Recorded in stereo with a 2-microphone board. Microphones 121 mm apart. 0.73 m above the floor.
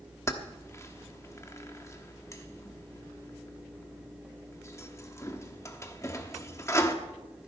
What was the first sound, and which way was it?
Keys jangling, 25° left (ahead or behind).